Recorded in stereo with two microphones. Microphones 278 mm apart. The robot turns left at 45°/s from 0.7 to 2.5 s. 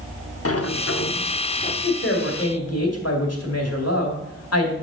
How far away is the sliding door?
About 0.7 m.